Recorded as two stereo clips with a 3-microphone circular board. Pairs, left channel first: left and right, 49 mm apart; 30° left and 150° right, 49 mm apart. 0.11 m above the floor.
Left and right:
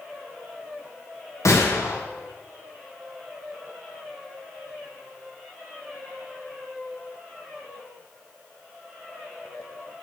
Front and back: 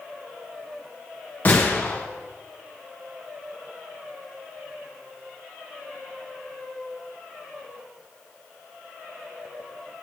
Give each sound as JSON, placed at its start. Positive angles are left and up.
{"t": 1.4, "sound": "a gunshot", "azimuth_deg": 80, "distance_m": 2.5}